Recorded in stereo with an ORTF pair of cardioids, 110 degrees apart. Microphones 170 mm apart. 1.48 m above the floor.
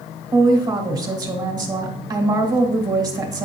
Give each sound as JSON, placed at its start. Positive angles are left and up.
{"t": 0.3, "sound": "a woman speaking", "azimuth_deg": -20, "distance_m": 1.8}